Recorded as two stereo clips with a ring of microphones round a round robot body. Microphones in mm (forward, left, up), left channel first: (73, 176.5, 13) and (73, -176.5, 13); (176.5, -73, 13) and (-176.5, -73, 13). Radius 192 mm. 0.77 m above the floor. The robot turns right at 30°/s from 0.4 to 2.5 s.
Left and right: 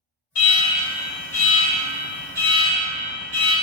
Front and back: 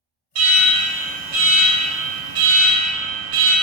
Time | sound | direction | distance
0.3 | an alarm | 145° left | 1.1 m